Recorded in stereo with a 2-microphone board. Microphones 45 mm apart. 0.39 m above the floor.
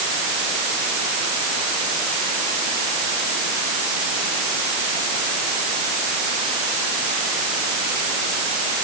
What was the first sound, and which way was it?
Only background noise.